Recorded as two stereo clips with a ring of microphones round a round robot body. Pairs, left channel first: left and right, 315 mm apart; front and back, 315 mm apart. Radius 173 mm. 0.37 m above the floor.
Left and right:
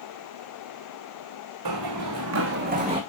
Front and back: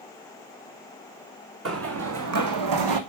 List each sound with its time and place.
1.6 s running footsteps: 130° right, 1.9 m; by 3.0 s 170° right, 1.3 m